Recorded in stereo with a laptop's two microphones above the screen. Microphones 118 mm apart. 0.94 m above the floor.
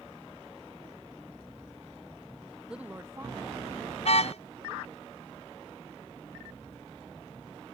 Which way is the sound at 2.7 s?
5° right (ahead or behind).